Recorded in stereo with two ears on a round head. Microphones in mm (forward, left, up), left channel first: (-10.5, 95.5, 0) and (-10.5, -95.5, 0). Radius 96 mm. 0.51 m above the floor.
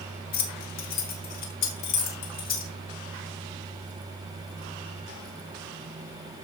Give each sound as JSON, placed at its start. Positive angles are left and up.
{"t": 0.3, "sound": "keys jangling", "side_deg": 45, "distance_m": 1.5}